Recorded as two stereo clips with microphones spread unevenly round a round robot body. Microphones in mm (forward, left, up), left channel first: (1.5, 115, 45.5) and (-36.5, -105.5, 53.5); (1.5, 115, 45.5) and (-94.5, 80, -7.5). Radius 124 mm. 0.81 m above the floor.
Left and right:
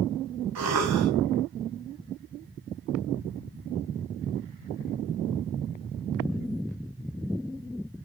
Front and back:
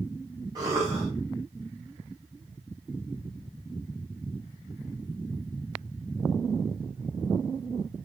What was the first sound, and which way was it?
A cough, 95° right.